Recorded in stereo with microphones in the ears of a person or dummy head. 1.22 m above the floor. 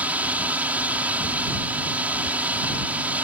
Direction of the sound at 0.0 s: 10° right (ahead or behind).